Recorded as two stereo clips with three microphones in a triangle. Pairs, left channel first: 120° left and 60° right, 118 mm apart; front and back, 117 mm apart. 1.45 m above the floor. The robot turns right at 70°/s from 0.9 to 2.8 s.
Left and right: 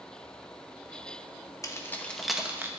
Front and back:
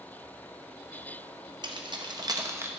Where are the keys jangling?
165° left, 0.8 m; by 2.7 s 120° right, 0.8 m.